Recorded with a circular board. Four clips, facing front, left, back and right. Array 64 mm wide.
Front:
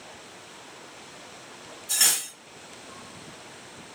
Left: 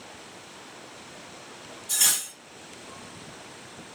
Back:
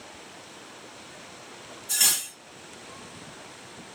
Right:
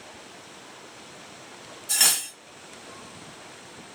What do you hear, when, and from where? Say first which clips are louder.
1.9 s cutlery clinking: right 3 dB, front 1 dB; 85° right, 1.4 m